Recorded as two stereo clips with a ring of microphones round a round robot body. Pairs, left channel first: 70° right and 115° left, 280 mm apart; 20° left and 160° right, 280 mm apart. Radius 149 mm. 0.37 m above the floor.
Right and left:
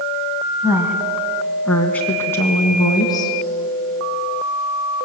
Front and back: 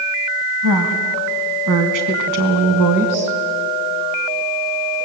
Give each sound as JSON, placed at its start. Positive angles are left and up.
{"t": 0.6, "sound": "a woman speaking", "azimuth_deg": -165, "distance_m": 2.5}